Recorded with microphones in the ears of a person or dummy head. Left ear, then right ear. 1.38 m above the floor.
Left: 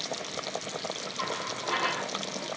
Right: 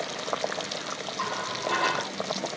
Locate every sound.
1.2 s a running tap: 10° right (ahead or behind), 8 m